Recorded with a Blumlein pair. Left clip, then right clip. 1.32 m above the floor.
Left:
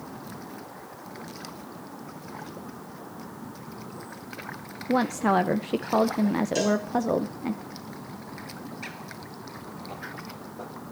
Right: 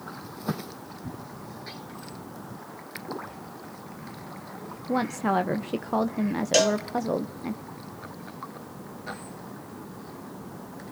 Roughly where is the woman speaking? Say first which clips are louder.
Left 2 dB; ahead.